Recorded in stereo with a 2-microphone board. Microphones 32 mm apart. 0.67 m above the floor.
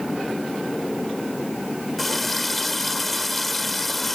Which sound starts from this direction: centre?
A running tap, at 2.0 s.